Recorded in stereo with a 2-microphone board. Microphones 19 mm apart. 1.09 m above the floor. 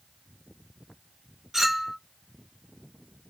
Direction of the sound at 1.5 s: 15° right (ahead or behind).